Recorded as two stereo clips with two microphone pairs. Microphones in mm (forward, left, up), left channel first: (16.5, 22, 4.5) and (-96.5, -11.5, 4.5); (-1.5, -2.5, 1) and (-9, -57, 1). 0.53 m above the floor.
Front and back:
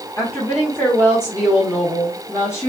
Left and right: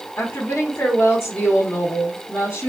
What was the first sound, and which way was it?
A woman speaking, 85° left.